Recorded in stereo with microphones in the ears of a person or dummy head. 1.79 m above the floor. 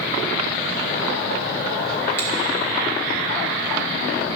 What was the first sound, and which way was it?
A finger snap, 15° left (ahead or behind).